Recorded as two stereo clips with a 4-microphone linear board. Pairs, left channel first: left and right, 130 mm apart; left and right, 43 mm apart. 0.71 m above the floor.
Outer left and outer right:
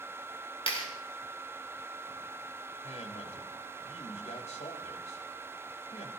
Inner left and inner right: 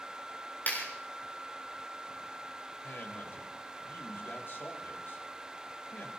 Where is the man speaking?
60° left (ahead or behind), 3.5 m.